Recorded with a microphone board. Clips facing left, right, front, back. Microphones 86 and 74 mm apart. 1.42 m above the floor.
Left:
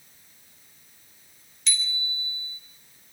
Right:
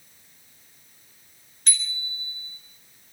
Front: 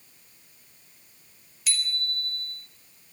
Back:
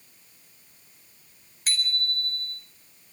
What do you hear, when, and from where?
1.7 s a bicycle bell: 135° right, 4 m